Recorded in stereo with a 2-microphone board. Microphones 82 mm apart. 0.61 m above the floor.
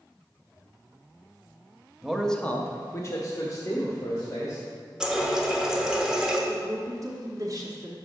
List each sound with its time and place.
2.0 s a man speaking: 5° right (ahead or behind), 0.7 m; by 4.6 s 40° left (ahead or behind), 2 m
5.0 s a running tap: 10° right (ahead or behind), 0.9 m
6.5 s a woman speaking: 40° right (ahead or behind), 0.9 m